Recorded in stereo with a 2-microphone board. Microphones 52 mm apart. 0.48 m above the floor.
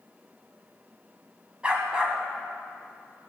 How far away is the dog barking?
About 1.6 m.